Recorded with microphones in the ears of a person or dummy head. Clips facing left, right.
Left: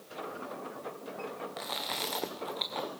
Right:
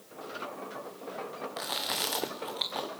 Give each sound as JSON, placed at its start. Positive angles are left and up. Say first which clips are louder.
{"t": 1.6, "sound": "chewing", "louder": "right 1 dB", "side_deg": -10, "distance_m": 0.7}